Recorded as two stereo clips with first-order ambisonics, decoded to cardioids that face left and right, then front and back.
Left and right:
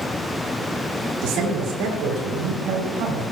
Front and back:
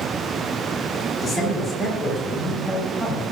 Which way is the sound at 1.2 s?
65° right.